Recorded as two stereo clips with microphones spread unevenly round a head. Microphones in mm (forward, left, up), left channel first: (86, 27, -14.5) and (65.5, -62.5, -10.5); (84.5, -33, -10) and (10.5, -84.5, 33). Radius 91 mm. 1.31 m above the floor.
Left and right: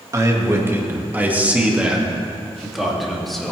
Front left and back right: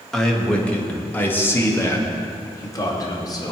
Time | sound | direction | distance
0.1 | a man speaking | 50° right | 2 m